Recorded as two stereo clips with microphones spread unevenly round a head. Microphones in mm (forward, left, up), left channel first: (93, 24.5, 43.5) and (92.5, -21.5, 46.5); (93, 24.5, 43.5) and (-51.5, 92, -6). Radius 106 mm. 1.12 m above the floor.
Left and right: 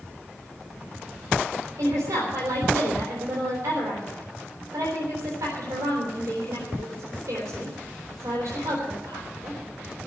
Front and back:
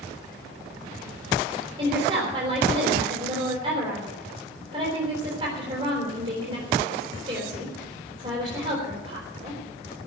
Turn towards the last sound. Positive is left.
turn(degrees=-135)